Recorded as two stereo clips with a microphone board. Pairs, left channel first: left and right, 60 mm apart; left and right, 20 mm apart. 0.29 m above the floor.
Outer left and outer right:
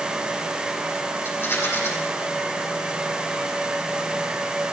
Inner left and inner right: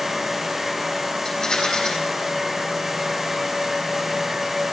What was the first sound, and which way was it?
A rattle, 45° left (ahead or behind).